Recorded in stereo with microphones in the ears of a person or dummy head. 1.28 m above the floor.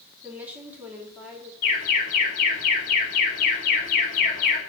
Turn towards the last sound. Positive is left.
turn(degrees=45)  # may be behind; listen again after turning